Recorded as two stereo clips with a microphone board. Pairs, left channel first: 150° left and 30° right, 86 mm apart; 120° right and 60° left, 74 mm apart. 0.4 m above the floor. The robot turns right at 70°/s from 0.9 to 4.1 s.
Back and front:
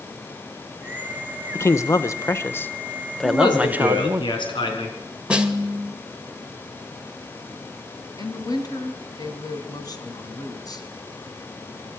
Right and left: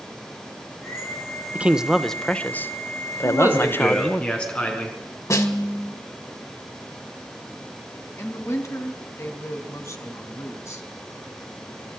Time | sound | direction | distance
1.6 | a man speaking | 120° left | 0.9 m
3.2 | a man speaking | 105° left | 5 m
5.3 | a snare drum | 105° right | 1.9 m
8.2 | a woman speaking | 170° right | 3 m